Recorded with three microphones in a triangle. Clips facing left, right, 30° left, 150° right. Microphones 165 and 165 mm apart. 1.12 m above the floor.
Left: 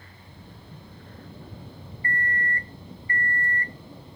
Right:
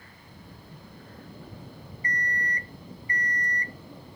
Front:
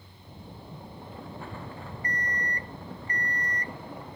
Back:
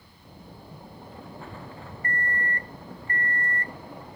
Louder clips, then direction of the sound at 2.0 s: Left 3 dB, back 4 dB; 155° right.